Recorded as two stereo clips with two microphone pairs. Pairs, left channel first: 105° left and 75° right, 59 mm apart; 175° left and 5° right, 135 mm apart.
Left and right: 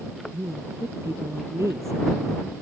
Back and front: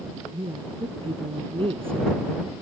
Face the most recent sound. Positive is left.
turn(degrees=-50)